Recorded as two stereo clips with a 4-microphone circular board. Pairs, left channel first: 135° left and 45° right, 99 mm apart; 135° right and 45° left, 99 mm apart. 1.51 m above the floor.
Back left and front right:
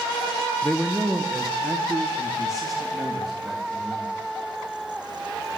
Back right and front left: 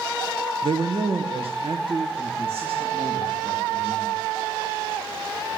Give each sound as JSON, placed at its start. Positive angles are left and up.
{"t": 0.6, "sound": "a man speaking", "azimuth_deg": 45, "distance_m": 0.9}